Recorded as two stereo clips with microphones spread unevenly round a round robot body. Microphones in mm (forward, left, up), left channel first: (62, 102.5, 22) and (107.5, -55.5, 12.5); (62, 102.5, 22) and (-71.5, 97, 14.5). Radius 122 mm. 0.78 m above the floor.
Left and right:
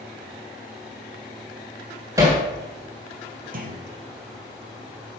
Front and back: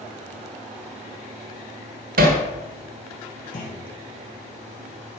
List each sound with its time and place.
2.2 s hammering: 150° right, 1.3 m
3.5 s a clunk: 40° right, 2 m